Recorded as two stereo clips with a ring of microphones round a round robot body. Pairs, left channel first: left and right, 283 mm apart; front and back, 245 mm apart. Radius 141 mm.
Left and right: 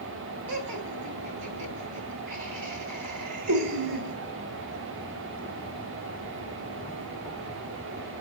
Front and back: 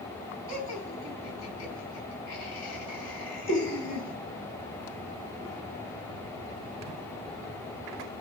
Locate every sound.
0.5 s laughter: 105° right, 4.5 m